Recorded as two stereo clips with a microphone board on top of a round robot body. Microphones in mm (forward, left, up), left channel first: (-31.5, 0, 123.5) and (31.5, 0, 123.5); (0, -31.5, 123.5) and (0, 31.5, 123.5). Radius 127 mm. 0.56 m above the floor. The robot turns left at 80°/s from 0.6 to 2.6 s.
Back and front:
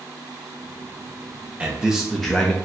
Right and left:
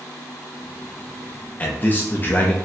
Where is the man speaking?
50° right, 0.6 m; by 2.5 s 125° right, 0.6 m.